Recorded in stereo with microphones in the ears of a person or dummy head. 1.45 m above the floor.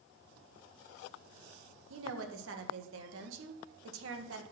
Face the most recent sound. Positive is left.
turn(degrees=-80)